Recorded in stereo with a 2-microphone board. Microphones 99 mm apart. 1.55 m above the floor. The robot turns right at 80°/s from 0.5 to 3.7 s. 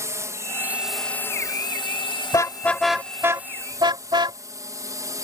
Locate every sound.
0.0 s a drone: 35° right; by 5.2 s 140° right
2.3 s a car horn: 40° left (ahead or behind); by 4.4 s 55° right (ahead or behind)